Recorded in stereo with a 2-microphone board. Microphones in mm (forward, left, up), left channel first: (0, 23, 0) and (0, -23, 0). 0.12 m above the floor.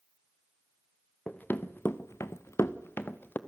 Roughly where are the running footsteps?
Left.